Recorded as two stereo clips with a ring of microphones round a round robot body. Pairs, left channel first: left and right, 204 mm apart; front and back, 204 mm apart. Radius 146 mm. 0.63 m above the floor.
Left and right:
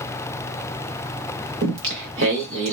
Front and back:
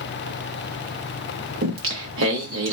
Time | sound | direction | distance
1.6 | singing | 135° right | 0.5 m